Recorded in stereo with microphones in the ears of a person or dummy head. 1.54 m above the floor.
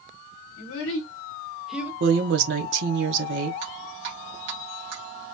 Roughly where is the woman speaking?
Right.